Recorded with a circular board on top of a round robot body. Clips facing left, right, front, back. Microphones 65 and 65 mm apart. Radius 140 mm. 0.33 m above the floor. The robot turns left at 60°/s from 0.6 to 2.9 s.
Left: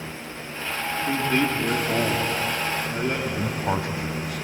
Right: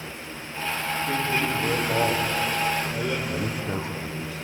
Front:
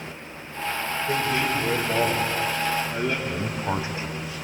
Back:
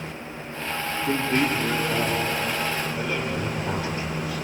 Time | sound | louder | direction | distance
1.1 | a man speaking | left 4 dB, back 2 dB | 160° left | 8.5 m
3.3 | a man speaking | left 3 dB, even | 65° left | 3 m